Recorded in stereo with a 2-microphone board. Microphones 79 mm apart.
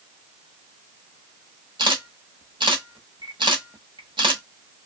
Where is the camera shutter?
75° right (ahead or behind), 0.9 m.